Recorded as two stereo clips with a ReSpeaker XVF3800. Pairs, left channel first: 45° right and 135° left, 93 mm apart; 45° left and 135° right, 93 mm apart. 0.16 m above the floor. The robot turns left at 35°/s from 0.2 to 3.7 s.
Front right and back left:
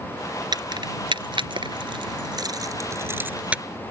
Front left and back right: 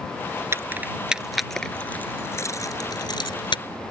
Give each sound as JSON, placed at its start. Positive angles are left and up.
{"t": 0.5, "sound": "keys jangling", "azimuth_deg": 165}